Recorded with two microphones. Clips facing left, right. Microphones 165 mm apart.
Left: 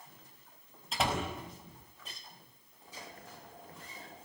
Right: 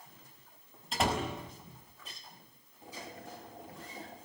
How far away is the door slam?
About 5.5 m.